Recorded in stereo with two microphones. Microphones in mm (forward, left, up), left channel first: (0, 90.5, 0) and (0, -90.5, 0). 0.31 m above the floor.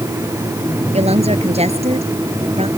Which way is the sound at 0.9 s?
35° right (ahead or behind).